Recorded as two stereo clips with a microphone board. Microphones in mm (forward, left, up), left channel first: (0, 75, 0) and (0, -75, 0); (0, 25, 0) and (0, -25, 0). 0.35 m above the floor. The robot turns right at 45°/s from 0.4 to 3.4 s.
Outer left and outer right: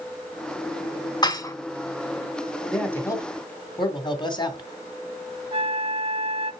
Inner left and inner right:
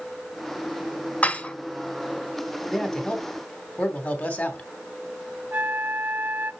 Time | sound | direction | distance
1.2 | dishes clattering | 30° left (ahead or behind) | 0.8 m
2.7 | a man speaking | 5° left | 2.5 m
5.5 | a flute | 40° right (ahead or behind) | 0.6 m